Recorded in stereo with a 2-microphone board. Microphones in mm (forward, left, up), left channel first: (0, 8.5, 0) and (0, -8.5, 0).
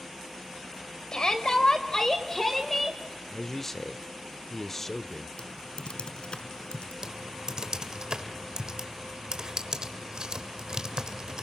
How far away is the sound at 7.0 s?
About 1.6 m.